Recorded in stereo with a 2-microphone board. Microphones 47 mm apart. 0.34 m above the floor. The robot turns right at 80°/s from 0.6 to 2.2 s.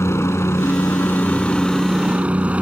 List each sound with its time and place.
0.0 s a helicopter: 85° left; by 2.6 s 150° right